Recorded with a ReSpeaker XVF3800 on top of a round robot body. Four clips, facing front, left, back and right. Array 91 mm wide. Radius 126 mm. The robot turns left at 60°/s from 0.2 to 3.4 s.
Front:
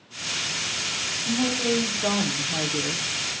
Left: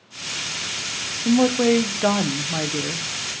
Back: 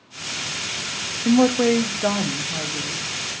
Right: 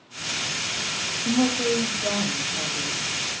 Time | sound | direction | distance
1.2 | a woman speaking | 160° left | 0.8 m